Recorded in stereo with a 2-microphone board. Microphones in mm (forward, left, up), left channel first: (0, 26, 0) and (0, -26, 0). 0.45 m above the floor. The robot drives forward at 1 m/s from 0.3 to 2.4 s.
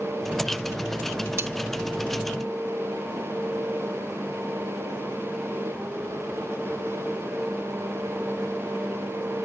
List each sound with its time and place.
1.4 s cutlery clinking: 45° right (ahead or behind), 0.5 m; by 1.5 s 40° right (ahead or behind), 0.5 m